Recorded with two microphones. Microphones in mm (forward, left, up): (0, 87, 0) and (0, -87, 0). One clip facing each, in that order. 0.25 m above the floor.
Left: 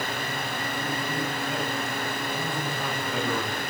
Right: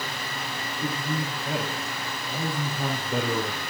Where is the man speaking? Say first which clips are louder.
Right 3 dB; 55° right (ahead or behind), 4 m; by 3.6 s 30° right (ahead or behind), 3 m.